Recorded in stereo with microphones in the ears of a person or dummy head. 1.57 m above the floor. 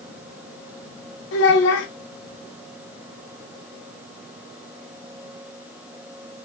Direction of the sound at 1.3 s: 70° left (ahead or behind).